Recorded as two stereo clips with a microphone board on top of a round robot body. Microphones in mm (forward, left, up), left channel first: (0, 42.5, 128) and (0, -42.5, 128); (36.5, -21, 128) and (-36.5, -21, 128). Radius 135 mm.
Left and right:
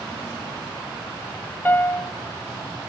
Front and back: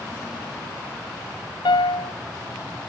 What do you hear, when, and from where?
1.6 s a piano: 20° left, 0.7 m